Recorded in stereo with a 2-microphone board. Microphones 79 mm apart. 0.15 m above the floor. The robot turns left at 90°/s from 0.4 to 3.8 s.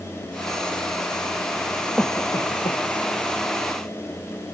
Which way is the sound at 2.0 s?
10° left (ahead or behind).